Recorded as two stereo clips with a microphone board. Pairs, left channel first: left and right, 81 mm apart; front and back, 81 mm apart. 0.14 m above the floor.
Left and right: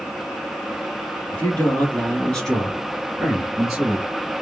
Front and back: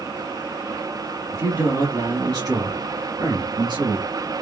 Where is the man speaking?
150° left, 2 m; by 4.1 s 170° right, 3 m.